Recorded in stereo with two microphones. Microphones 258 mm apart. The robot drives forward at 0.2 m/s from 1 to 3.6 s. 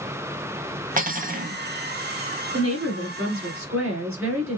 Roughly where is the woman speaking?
Right.